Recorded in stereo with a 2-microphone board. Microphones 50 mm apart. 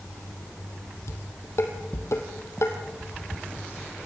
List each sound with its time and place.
1.1 s dishes clattering: 65° left (ahead or behind), 3 m